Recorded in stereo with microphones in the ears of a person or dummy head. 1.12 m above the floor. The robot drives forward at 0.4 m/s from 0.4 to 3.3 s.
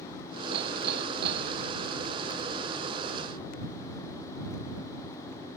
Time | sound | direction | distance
0.5 | hammering | 55° right (ahead or behind) | ?